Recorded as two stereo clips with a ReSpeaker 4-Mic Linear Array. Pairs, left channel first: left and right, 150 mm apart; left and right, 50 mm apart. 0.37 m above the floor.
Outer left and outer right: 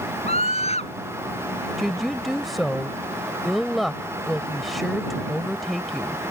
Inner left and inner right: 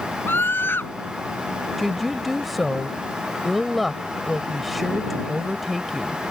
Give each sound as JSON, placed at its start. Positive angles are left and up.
{"t": 0.3, "sound": "a scream", "side_deg": 45}
{"t": 1.8, "sound": "a woman speaking", "side_deg": 0}